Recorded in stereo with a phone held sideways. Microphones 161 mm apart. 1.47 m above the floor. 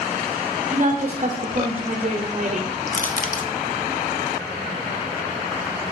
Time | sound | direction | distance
0.7 | a woman speaking | 45° right (ahead or behind) | 0.8 m
2.9 | crushing | 55° left (ahead or behind) | 0.8 m